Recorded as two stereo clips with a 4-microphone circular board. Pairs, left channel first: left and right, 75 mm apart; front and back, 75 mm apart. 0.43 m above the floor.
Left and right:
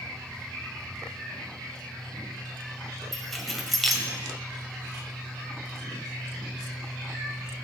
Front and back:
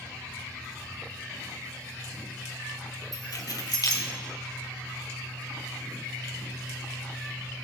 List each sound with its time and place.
3.1 s keys jangling: straight ahead, 1.8 m